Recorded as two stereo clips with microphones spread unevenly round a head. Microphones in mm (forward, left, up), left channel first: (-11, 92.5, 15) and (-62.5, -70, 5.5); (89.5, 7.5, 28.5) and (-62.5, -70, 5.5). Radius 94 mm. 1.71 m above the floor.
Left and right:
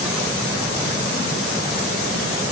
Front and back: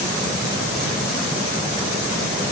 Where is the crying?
No crying in this recording.